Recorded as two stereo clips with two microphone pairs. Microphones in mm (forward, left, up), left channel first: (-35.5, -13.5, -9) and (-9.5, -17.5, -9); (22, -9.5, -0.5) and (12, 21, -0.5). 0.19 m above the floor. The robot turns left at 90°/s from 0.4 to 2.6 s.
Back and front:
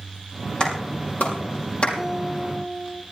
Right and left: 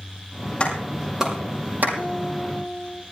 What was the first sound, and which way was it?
A clap, 125° right.